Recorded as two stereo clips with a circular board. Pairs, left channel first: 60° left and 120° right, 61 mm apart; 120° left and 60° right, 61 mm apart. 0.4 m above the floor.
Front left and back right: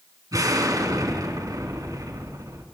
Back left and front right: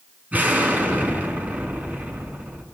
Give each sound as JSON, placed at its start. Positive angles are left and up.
{"t": 0.3, "sound": "an explosion", "azimuth_deg": -125, "distance_m": 4.0}